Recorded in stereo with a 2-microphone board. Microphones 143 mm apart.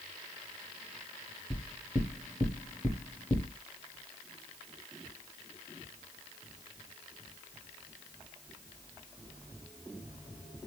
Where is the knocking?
5° left (ahead or behind), 1.2 m.